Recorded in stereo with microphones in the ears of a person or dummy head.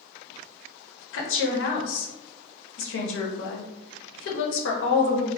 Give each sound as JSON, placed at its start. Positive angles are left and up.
{"t": 1.1, "sound": "a woman speaking", "side_deg": 65, "distance_m": 0.7}